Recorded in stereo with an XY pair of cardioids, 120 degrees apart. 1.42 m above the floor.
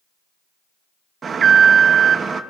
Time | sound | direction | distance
1.2 | an alarm | 35° right | 1.0 m